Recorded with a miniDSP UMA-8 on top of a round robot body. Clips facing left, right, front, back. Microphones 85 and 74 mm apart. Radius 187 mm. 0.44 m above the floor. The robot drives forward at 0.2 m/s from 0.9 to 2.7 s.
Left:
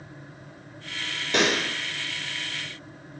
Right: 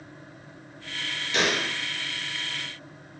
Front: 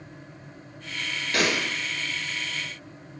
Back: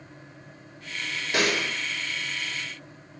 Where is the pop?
110° left, 0.9 m; by 1.6 s 115° left, 0.9 m.